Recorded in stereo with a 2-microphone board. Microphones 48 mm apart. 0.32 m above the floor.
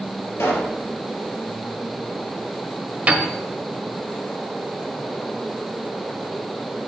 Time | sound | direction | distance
0.4 | a pop | 70° left (ahead or behind) | 3.5 m
3.1 | a piano | 30° right (ahead or behind) | 1.4 m